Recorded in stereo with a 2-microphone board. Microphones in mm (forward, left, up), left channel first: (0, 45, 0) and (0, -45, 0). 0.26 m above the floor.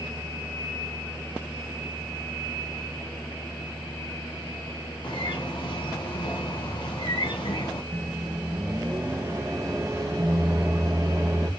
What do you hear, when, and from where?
5.0 s a bird: 65° left (ahead or behind), 1.0 m
7.9 s a microwave: 35° right (ahead or behind), 1.5 m